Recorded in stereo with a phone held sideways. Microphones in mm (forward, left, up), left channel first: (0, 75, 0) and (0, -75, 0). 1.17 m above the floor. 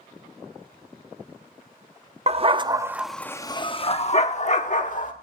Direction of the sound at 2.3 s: 40° right (ahead or behind).